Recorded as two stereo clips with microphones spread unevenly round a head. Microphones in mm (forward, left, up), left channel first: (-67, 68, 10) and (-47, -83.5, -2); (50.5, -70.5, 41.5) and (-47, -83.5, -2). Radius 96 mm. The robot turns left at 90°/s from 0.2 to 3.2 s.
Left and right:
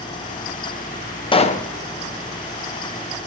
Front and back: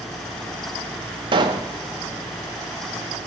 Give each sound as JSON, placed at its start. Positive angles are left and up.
{"t": 1.3, "sound": "a pop", "azimuth_deg": 155, "distance_m": 0.7}